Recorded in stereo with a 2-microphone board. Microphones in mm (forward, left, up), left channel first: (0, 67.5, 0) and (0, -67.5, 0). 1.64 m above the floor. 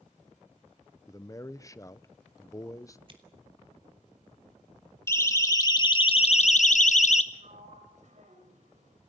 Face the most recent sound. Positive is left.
turn(degrees=-60)  # may be behind; listen again after turning